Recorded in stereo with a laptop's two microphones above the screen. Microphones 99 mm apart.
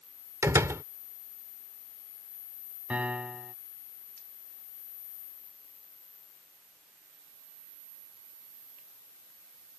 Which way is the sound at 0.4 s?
30° right (ahead or behind).